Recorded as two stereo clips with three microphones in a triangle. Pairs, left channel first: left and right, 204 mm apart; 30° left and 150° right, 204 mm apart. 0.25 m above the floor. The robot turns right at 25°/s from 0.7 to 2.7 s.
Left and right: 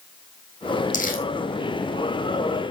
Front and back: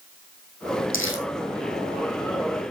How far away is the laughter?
No laughter in this recording.